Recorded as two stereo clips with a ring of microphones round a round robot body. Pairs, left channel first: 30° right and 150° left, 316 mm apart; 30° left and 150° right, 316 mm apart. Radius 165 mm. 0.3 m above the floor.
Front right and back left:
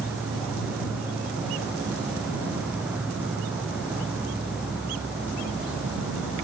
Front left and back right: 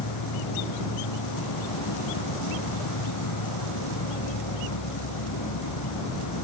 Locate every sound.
0.0 s an insect: 65° left